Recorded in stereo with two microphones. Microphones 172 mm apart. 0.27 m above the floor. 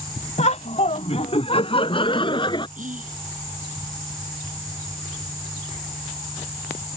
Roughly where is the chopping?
No chopping in this recording.